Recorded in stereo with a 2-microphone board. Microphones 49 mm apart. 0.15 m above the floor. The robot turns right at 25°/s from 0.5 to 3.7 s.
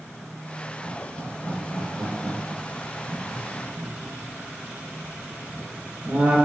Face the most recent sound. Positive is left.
turn(degrees=-25)  # may be behind; listen again after turning